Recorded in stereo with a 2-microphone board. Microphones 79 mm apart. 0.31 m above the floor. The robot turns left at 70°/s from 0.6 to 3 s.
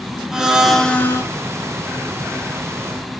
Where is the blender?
175° right, 0.7 m; by 1.2 s 140° left, 0.7 m.